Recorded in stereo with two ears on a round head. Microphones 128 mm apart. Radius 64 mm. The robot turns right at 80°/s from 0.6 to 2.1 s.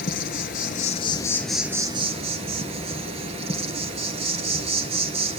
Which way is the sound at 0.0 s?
105° left.